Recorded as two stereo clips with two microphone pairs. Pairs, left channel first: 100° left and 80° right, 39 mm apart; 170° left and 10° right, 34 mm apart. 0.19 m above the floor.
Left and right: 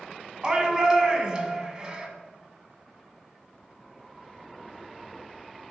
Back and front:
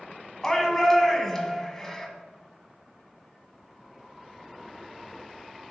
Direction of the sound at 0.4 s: 125° right.